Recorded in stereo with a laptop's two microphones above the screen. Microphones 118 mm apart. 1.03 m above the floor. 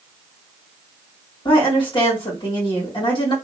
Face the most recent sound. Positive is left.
turn(degrees=40)  # may be behind; listen again after turning